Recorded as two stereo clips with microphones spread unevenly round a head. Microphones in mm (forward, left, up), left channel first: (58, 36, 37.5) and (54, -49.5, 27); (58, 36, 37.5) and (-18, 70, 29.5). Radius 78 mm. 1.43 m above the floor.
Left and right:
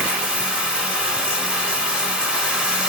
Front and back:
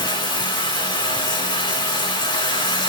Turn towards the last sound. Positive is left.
turn(degrees=-10)